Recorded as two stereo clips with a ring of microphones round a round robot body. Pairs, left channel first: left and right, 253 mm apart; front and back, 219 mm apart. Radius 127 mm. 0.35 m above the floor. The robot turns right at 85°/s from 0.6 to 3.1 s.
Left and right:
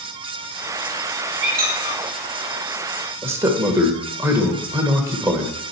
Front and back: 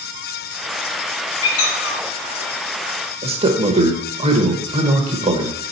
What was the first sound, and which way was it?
A squeak, 50° right.